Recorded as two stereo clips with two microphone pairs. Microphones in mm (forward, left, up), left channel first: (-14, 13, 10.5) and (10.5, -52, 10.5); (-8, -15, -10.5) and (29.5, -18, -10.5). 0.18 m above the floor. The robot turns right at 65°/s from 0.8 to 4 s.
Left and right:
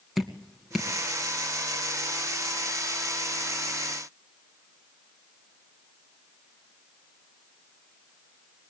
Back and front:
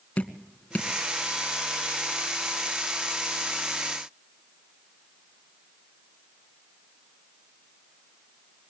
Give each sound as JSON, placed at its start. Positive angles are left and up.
{"t": 0.2, "sound": "dripping", "azimuth_deg": -155, "distance_m": 2.0}